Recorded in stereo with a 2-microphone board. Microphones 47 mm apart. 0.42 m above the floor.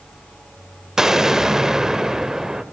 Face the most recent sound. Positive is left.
turn(degrees=-10)  # may be behind; listen again after turning